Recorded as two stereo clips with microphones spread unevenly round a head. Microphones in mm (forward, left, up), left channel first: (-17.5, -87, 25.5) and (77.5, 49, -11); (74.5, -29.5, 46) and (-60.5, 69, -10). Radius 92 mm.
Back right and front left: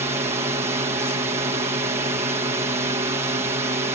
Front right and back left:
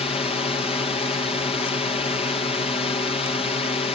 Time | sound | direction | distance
0.0 | a drone | 25° left | ?